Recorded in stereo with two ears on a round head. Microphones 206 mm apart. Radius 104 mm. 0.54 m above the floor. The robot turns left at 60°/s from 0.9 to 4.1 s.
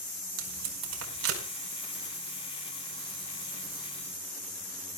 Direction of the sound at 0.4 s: 80° right.